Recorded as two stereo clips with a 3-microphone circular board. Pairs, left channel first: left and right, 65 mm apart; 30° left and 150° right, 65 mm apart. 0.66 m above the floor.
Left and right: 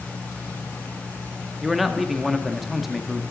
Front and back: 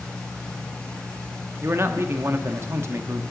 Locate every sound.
1.6 s a man speaking: 175° right, 0.7 m